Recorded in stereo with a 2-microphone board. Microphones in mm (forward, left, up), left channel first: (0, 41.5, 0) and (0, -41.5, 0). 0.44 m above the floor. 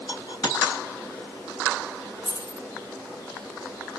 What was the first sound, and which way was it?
A dropped coin, 50° left (ahead or behind).